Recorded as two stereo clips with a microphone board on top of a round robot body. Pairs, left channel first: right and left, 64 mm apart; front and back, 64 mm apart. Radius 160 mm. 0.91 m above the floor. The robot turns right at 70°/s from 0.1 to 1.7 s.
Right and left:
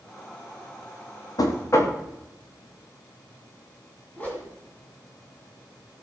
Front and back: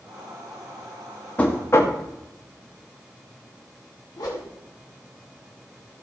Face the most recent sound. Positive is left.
turn(degrees=-25)